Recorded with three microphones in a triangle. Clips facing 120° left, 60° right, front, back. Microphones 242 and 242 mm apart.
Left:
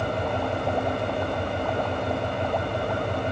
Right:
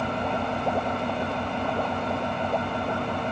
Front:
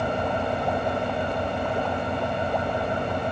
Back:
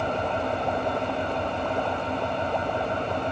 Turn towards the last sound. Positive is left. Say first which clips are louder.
# left 1 dB, front 1 dB
turn(degrees=75)